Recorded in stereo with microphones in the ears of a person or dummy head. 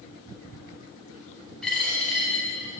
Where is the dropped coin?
Centre (ahead or behind), 2.5 m.